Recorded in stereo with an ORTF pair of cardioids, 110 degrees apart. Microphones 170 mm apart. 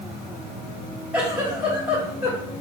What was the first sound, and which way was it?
A giggle, 10° right.